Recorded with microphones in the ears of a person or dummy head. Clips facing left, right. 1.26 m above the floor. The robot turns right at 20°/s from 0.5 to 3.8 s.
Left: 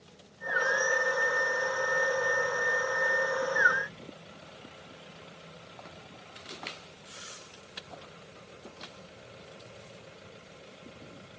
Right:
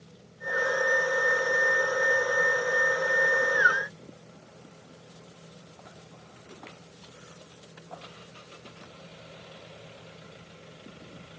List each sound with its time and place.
Only background noise.